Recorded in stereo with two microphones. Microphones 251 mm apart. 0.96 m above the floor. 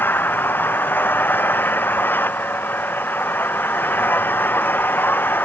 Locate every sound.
0.0 s an engine running: 5° left (ahead or behind)